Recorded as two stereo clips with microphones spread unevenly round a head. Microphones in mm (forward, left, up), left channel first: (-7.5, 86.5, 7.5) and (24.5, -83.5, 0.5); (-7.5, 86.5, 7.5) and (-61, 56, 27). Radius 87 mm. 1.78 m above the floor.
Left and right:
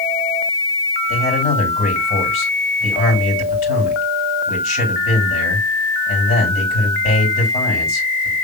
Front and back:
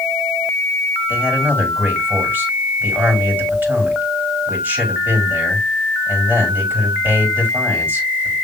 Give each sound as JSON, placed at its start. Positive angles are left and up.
{"t": 1.1, "sound": "a man speaking", "azimuth_deg": 150, "distance_m": 6.0}